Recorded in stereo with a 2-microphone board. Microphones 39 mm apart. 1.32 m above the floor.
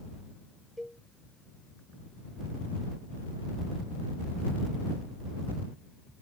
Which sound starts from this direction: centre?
A cowbell, at 0.8 s.